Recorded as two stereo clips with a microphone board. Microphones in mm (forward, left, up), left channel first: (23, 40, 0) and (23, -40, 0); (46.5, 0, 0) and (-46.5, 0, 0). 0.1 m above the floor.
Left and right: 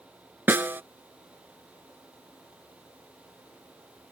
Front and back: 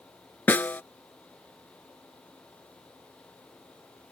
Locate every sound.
0.5 s a snare drum: 50° right